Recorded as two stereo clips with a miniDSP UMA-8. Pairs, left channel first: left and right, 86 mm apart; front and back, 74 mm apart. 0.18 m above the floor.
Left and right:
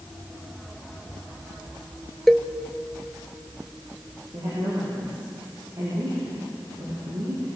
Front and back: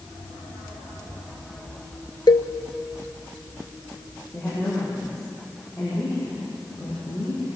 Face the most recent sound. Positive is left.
turn(degrees=-65)